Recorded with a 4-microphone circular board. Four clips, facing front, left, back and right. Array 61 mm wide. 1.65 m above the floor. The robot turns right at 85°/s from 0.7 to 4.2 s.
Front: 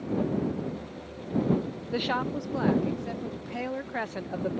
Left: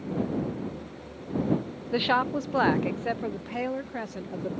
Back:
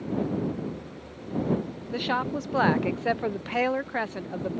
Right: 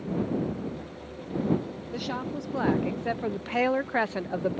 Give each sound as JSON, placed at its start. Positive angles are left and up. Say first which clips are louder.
{"t": 1.9, "sound": "a woman speaking", "louder": "left 9 dB, back 1 dB", "azimuth_deg": 80}